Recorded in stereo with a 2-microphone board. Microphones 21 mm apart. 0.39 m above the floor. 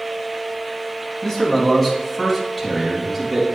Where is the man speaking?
25° left (ahead or behind), 3 m; by 3.4 s centre (ahead or behind), 3.5 m.